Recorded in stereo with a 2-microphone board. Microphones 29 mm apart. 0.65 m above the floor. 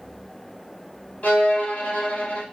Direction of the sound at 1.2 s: 60° left (ahead or behind).